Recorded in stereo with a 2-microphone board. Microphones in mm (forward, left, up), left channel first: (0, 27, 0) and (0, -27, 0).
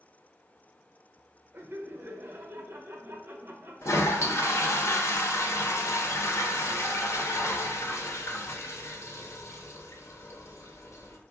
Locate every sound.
1.5 s laughter: 45° right (ahead or behind), 0.9 m
3.8 s a toilet flushing: 70° left (ahead or behind), 0.7 m